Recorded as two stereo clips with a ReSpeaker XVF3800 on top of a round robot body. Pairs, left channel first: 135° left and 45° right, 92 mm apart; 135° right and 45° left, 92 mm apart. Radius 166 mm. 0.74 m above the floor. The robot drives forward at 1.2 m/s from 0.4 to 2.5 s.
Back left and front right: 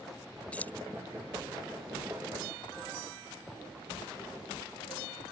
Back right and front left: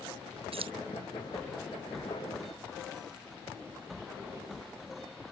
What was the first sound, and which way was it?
Keys jangling, 60° left.